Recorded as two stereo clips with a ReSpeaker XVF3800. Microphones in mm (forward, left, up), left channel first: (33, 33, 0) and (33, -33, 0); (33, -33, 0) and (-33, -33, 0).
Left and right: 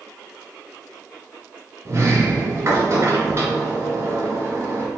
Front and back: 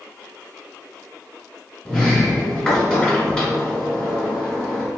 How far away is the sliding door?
About 1.2 m.